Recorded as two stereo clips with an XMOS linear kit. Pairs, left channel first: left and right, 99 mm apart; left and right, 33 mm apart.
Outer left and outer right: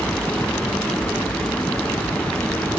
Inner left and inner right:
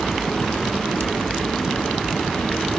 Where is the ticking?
No ticking in this recording.